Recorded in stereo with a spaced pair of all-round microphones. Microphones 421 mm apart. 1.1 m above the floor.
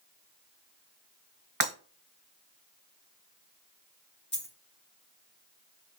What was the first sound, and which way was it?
Breaking glass, 50° right (ahead or behind).